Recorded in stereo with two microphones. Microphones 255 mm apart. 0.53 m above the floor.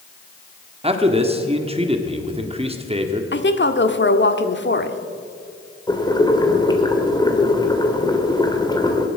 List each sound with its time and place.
0.8 s a man speaking: 25° right (ahead or behind), 1.4 m
3.3 s a woman speaking: 45° left (ahead or behind), 1.2 m
5.9 s boiling: 15° left (ahead or behind), 1.9 m